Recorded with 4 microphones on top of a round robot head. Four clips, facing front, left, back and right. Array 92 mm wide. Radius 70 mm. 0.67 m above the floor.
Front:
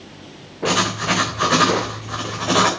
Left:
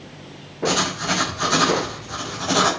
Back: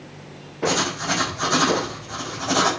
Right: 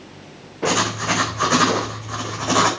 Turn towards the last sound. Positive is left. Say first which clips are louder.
# right 2 dB, front 3 dB
turn(degrees=-35)